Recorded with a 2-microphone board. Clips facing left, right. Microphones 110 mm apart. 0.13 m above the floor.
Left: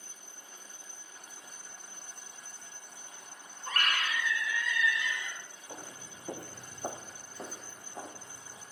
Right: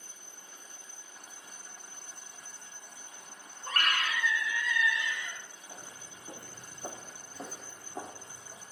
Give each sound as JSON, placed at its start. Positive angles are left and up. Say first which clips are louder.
{"t": 3.6, "sound": "a scream", "louder": "right 1 dB", "side_deg": -30, "distance_m": 4.0}
{"t": 5.7, "sound": "footsteps", "louder": "left 5 dB", "side_deg": 70, "distance_m": 1.8}